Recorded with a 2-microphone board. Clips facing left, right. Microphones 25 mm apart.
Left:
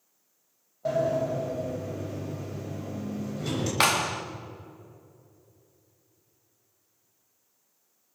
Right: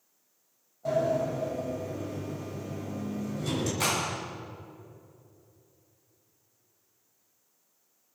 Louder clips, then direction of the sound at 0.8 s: Left 1 dB; 25° left (ahead or behind).